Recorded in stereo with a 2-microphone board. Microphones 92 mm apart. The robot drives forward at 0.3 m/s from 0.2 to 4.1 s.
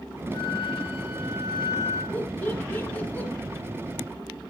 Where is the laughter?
20° left (ahead or behind), 1.1 m.